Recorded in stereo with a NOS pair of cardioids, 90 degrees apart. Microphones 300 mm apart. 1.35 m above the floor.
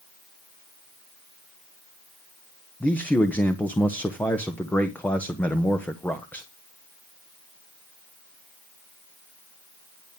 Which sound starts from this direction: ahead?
A man speaking, at 2.8 s.